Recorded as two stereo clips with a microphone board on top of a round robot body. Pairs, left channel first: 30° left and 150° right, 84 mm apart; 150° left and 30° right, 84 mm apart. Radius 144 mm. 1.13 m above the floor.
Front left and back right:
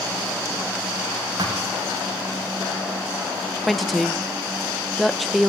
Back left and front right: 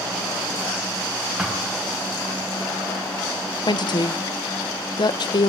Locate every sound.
1.4 s a thud: 110° right, 2.5 m
3.7 s a woman speaking: 120° left, 0.6 m